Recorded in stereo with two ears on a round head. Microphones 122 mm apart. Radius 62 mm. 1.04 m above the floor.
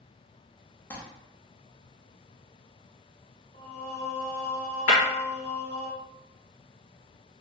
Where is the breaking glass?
55° left (ahead or behind), 1.2 m.